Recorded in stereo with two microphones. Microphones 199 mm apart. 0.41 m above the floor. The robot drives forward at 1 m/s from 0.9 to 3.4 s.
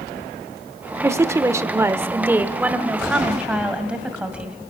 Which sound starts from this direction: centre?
A woman speaking, at 1.0 s.